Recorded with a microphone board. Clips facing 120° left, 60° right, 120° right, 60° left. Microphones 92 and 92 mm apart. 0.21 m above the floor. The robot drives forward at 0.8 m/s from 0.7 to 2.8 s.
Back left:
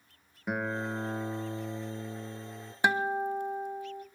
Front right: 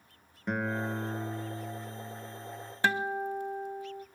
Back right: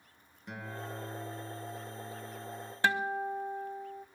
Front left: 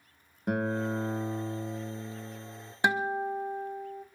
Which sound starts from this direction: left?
A guitar, at 2.8 s.